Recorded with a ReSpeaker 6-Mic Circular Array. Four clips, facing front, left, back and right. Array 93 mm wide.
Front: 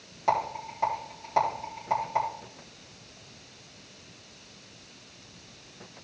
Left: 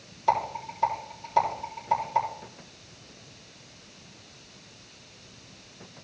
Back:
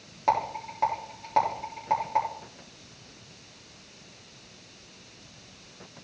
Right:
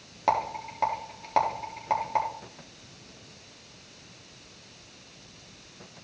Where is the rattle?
110° right, 4 m.